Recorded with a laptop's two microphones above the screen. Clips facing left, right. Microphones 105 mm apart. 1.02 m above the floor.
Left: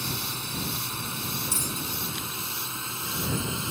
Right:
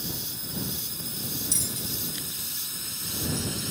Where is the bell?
50° left (ahead or behind).